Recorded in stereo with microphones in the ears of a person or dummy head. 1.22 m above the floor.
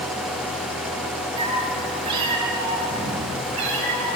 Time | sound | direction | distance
1.4 | a cat meowing | 20° right (ahead or behind) | 4 m